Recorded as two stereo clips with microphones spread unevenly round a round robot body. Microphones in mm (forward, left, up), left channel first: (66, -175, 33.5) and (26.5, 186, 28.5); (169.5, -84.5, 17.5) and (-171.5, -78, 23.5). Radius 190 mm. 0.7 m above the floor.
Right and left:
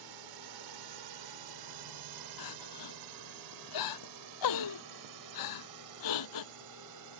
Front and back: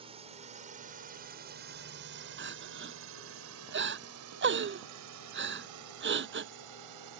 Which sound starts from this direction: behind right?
Crying, at 2.4 s.